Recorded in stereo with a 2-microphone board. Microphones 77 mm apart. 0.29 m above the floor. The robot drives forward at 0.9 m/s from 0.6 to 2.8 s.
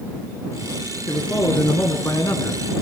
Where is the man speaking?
35° left (ahead or behind), 3 m; by 2.6 s 55° left (ahead or behind), 2.5 m.